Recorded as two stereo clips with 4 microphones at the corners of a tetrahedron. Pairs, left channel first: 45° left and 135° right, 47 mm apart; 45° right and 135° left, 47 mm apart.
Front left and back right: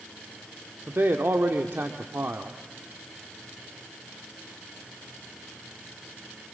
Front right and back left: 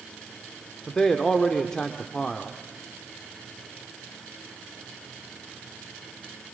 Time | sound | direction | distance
0.9 | a man speaking | 115° right | 1.2 m